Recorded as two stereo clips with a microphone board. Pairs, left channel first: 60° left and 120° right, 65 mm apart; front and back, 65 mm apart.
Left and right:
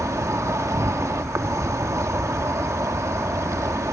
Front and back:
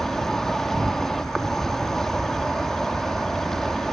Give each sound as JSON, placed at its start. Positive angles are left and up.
{"t": 0.0, "sound": "an insect", "azimuth_deg": -85}